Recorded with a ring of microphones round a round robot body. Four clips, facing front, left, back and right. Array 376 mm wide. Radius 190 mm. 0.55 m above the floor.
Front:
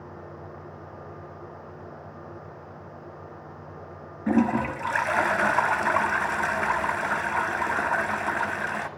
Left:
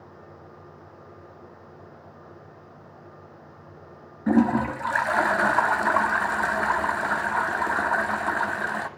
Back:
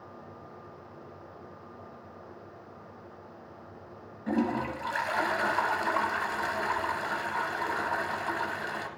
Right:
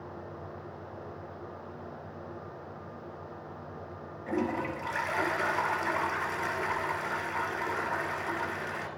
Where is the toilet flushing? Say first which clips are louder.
Left 10 dB, front 6 dB; 60° left, 1.0 m.